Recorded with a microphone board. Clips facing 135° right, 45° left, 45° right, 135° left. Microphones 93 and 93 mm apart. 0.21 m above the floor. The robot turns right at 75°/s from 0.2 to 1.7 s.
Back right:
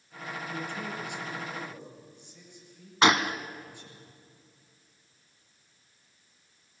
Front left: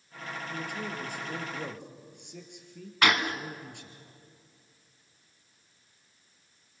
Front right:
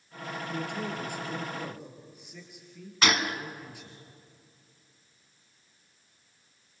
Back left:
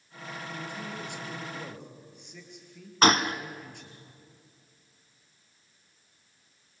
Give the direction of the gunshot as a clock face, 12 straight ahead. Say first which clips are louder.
Back right 3 dB, back left 5 dB; 6 o'clock.